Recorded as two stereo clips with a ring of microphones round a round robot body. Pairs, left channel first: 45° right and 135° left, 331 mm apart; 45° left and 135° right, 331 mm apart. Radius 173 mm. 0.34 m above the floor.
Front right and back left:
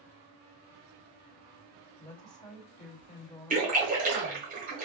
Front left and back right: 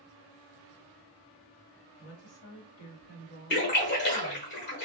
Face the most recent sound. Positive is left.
turn(degrees=80)